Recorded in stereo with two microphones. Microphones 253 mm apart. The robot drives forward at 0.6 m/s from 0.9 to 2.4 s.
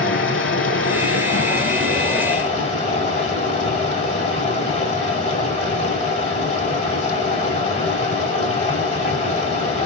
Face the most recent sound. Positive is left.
turn(degrees=30)  # may be behind; listen again after turning